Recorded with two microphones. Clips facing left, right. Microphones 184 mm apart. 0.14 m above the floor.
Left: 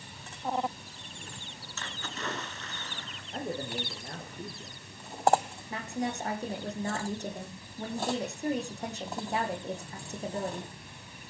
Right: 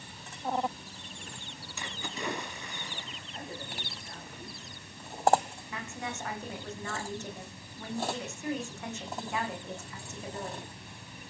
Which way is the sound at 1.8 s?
15° right (ahead or behind).